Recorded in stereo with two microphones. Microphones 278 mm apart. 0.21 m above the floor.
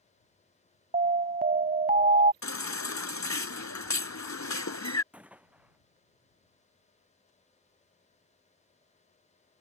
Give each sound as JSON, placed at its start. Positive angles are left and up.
{"t": 0.9, "sound": "an alarm", "side_deg": -30}
{"t": 2.4, "sound": "a baby crying", "side_deg": 75}
{"t": 5.1, "sound": "a gunshot", "side_deg": -5}